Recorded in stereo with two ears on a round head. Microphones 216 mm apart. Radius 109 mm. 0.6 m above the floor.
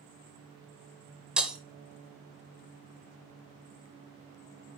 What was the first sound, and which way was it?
Breaking glass, 5° right (ahead or behind).